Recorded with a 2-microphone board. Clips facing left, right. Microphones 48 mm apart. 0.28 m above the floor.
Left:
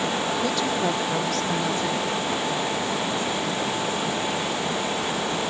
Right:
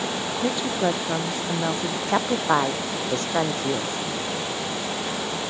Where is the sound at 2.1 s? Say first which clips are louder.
Right 4 dB; 70° right (ahead or behind).